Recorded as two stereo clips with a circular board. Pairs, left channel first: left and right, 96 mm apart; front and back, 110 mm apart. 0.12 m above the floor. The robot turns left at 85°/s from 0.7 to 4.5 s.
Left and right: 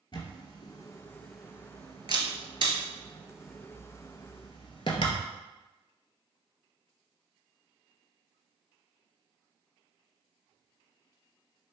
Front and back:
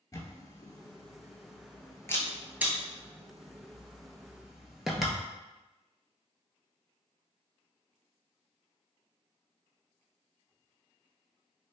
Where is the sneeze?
No sneeze in this recording.